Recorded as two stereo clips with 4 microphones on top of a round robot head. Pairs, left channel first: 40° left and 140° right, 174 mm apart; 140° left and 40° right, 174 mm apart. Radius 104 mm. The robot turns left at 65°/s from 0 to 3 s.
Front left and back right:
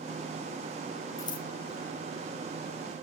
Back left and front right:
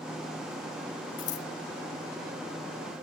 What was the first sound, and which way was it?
Scissors, 115° left.